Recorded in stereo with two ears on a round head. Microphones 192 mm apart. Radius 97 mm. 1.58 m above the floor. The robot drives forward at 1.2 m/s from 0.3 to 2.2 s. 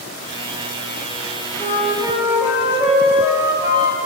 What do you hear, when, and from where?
1.6 s a flute: 20° right (ahead or behind), 5.5 m